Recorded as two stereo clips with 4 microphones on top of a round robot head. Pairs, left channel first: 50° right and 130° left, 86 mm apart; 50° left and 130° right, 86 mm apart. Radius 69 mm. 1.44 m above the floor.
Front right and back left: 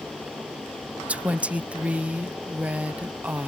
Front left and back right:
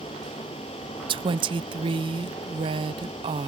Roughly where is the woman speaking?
Behind right.